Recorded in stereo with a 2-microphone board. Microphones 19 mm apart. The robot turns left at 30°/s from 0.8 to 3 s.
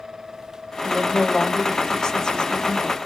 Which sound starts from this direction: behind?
A woman speaking, at 0.8 s.